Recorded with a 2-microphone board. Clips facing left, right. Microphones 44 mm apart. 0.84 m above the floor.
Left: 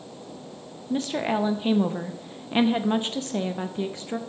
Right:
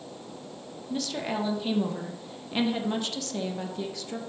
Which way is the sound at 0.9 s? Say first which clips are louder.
Left 6 dB; 30° left (ahead or behind).